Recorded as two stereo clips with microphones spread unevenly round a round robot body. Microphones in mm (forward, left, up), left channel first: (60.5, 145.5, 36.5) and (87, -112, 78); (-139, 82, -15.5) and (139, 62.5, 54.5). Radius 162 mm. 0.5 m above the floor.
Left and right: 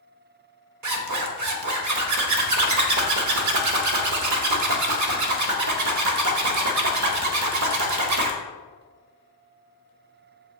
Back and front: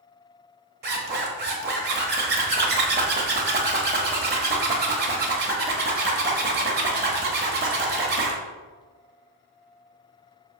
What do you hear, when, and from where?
0.8 s a zipper: 70° right, 1.2 m